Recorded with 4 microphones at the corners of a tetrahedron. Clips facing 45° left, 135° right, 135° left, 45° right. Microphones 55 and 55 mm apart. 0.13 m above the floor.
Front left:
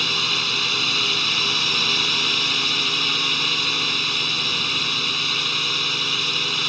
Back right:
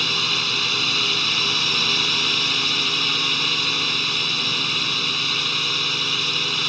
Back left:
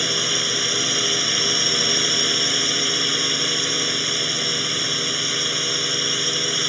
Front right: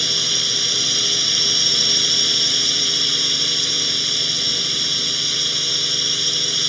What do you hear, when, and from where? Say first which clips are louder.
0.0 s a drone: even, back left 1 dB; 135° left